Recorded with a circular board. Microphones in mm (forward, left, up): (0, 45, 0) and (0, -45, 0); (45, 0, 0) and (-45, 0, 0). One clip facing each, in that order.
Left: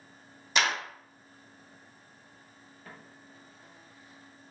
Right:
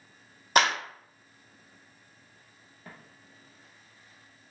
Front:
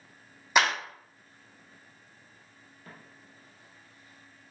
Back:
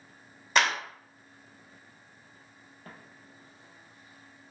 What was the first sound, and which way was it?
A clap, 80° right.